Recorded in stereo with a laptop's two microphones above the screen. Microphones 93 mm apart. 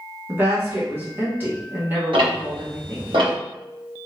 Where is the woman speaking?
20° right (ahead or behind), 1.0 m.